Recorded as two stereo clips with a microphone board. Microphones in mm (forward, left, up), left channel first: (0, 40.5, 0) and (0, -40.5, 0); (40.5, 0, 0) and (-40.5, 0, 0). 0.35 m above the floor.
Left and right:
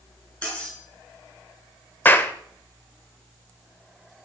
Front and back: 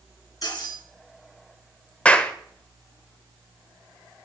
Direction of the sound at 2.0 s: 60° left.